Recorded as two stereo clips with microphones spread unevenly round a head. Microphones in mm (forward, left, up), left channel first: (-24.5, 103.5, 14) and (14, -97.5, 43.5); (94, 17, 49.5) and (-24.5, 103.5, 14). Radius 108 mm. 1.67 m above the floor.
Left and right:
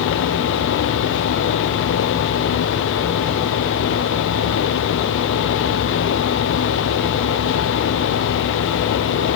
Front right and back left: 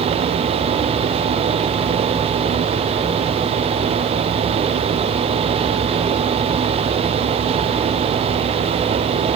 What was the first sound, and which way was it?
Only background noise.